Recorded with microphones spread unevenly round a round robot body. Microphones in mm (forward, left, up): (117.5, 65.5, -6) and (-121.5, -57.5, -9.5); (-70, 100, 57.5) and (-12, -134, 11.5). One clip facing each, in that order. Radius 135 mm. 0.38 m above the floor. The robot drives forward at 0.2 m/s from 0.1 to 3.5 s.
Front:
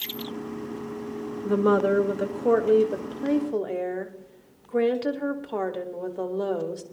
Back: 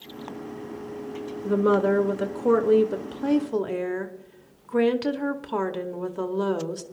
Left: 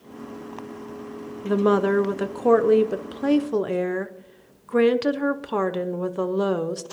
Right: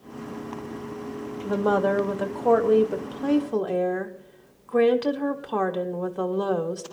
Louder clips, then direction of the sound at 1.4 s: Even, left 4 dB; 115° left.